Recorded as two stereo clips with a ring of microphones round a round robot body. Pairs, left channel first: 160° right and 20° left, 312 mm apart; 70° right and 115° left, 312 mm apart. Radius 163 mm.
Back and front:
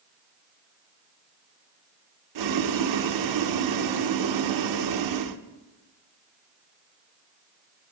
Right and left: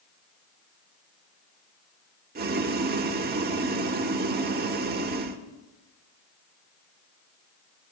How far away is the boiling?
About 1.0 m.